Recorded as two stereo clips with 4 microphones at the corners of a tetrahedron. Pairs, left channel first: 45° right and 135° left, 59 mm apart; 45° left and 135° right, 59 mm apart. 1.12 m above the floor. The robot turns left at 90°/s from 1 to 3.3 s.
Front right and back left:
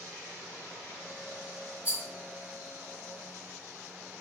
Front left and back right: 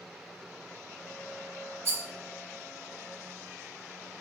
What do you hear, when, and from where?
1.9 s a rattle: 170° right, 0.8 m; by 2.0 s 175° left, 0.8 m